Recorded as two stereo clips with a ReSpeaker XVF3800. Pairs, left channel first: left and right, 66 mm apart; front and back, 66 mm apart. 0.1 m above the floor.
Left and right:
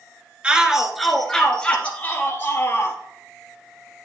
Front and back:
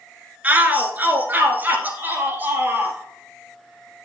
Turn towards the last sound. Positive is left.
turn(degrees=125)